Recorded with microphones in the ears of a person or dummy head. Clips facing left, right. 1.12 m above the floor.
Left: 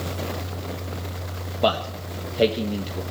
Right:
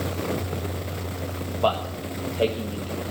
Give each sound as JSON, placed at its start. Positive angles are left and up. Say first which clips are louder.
{"t": 1.6, "sound": "a man speaking", "louder": "left 2 dB", "side_deg": 25, "distance_m": 1.2}